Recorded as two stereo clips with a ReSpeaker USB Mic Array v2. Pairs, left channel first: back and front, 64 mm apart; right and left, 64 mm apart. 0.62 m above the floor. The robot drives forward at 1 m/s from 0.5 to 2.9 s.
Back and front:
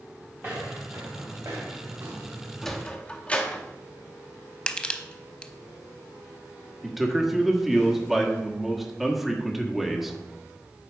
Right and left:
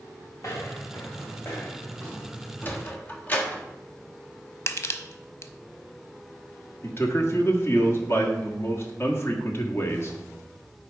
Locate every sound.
0.4 s footsteps: 55° right, 3.5 m; by 2.9 s 15° right, 3 m
2.6 s a sliding door: 95° right, 0.8 m; by 3.6 s 125° right, 0.9 m
4.7 s crushing: 110° right, 0.6 m
6.8 s a man speaking: 85° right, 1.2 m